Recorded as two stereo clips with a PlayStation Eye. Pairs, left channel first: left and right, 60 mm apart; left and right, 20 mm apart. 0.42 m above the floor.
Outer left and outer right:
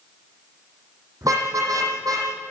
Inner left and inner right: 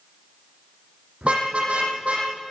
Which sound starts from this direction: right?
A car horn, at 1.2 s.